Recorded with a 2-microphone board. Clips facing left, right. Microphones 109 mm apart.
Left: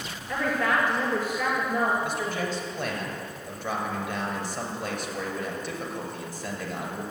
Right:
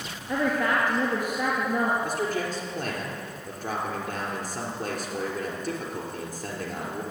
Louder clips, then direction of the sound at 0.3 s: Right 1 dB; 20° right (ahead or behind).